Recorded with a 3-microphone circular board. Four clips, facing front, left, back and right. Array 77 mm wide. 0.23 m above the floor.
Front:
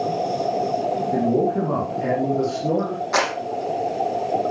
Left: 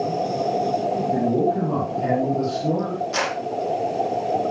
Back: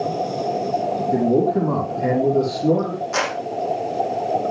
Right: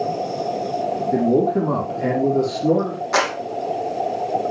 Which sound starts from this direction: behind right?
A man speaking, at 1.1 s.